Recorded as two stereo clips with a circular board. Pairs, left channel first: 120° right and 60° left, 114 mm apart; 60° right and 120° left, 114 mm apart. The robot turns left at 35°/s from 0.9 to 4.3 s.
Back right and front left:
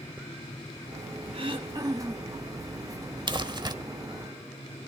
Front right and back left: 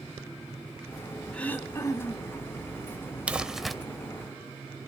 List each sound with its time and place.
1.3 s throat clearing: 20° left, 1.4 m; by 2.4 s 15° right, 1.4 m
3.3 s crumpling: 45° left, 0.8 m; by 3.8 s 30° left, 0.8 m